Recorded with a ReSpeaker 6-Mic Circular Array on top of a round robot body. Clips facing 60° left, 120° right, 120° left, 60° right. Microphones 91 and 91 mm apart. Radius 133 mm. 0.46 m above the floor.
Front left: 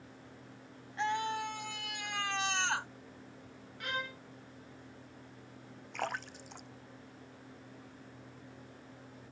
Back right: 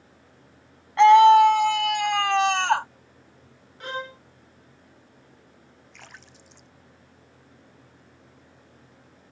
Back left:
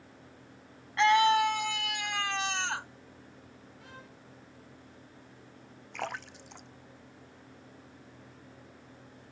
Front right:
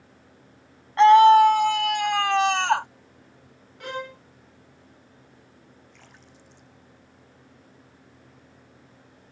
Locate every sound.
1.0 s a scream: 110° right; by 2.9 s 85° right
3.8 s a violin: 65° right
5.9 s a splash: 100° left